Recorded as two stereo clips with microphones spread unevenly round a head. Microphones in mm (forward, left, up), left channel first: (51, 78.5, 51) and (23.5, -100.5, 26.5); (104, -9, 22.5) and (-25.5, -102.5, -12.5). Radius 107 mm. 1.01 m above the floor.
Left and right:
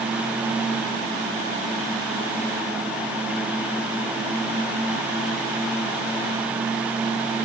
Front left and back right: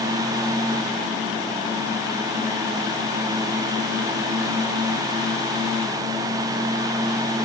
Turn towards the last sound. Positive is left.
No sound to turn to.